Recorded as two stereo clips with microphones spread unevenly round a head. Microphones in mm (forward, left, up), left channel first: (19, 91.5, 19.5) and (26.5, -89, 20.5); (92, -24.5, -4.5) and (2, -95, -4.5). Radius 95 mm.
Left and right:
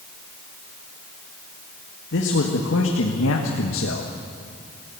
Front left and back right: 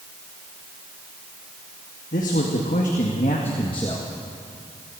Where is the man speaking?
75° left, 2 m; by 4.1 s 110° left, 1.5 m.